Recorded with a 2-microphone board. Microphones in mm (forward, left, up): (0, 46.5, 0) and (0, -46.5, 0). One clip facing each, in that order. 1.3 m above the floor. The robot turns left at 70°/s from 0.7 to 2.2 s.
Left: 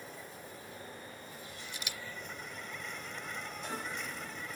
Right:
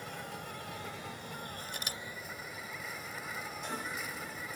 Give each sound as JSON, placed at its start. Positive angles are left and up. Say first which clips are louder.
{"t": 0.0, "sound": "an insect", "louder": "right 5 dB", "azimuth_deg": -70}
{"t": 1.7, "sound": "a camera shutter", "louder": "right 2 dB", "side_deg": -60}